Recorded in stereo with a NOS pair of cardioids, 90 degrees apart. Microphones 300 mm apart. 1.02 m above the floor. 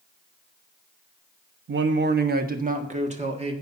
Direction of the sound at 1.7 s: 40° right.